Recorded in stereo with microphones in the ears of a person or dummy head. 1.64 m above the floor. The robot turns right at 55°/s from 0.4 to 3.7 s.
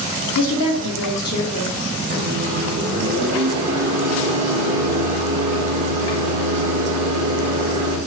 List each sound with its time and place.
0.3 s a woman speaking: 75° left, 0.8 m; by 1.8 s 155° left, 0.8 m
2.1 s a microwave: 140° right, 1.5 m; by 8.0 s 50° right, 1.5 m